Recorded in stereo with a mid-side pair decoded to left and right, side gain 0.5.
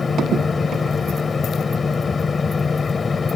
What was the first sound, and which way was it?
A fan, 30° left.